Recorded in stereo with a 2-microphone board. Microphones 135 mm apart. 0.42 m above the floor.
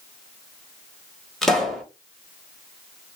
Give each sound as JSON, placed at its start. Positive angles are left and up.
{"t": 1.4, "sound": "a pop", "side_deg": 5, "distance_m": 1.2}